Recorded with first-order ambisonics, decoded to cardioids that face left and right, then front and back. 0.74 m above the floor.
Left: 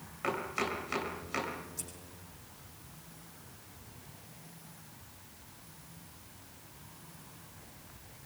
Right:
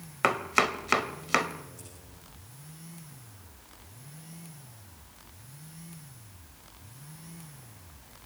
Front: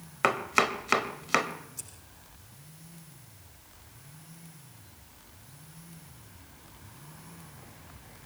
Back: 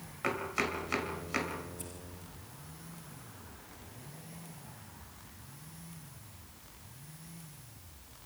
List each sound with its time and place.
0.2 s chopping: 45° right, 1.9 m
1.8 s scissors: 25° left, 7 m